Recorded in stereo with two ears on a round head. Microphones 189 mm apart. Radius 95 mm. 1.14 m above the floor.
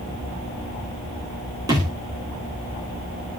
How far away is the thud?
About 6.5 m.